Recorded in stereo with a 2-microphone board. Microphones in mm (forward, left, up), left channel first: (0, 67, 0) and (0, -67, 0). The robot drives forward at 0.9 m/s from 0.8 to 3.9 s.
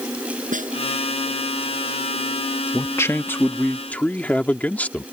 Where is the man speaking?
20° left (ahead or behind); by 5.0 s 10° left (ahead or behind).